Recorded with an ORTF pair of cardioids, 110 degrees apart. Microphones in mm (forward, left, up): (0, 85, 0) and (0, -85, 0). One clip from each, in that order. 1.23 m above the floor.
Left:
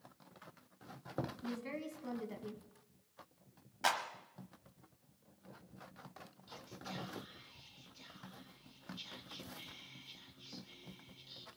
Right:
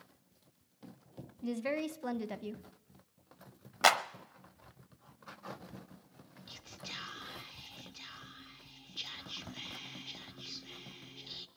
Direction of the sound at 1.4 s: 55° right.